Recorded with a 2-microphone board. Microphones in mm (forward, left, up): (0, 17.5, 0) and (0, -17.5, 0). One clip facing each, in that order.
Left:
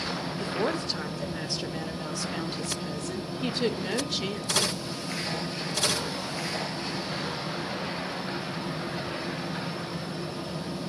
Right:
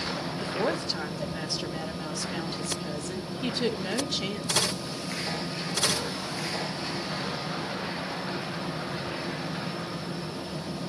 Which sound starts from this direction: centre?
A woman speaking, at 0.4 s.